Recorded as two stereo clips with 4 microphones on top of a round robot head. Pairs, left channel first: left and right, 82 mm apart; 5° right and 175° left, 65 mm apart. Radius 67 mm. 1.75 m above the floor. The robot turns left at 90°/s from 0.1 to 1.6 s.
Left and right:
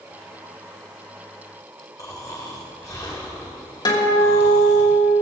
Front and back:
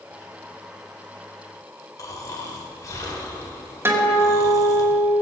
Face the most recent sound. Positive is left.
turn(degrees=125)